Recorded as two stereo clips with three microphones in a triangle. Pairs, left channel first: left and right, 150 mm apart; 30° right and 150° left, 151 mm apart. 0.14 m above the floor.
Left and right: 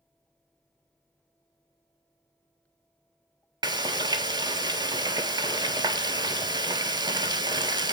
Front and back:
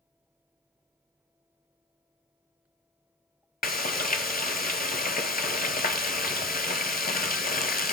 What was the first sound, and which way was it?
Frying, 25° right.